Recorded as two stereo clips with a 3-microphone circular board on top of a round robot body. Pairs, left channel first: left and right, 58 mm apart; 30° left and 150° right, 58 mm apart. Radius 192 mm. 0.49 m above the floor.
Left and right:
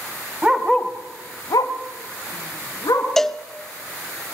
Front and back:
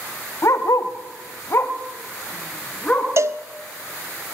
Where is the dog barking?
15° right, 0.9 m; by 3.1 s 105° left, 2.5 m.